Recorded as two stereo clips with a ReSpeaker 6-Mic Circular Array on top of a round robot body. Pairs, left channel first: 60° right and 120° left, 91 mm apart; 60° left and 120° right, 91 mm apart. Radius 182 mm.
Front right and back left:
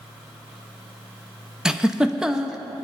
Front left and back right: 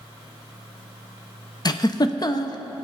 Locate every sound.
1.6 s a giggle: 40° left, 1.0 m